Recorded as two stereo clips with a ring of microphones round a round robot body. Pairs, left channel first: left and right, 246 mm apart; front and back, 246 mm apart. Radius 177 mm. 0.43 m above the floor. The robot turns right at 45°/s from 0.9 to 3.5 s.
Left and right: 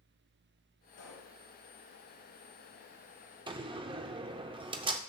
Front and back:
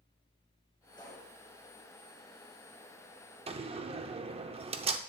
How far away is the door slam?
About 0.6 m.